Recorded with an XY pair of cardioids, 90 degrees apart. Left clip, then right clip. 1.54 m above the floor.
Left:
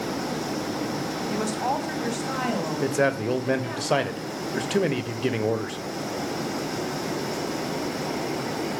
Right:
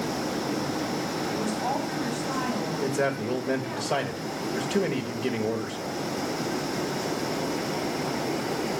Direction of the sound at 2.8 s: 35° left.